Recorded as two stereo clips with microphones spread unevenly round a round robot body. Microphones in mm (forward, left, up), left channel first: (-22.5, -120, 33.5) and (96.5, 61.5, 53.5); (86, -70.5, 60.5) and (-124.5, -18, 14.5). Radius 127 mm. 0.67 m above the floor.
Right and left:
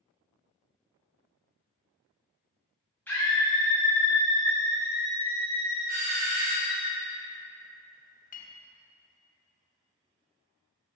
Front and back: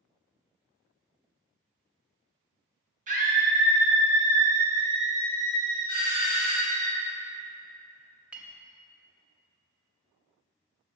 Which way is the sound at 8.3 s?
125° right.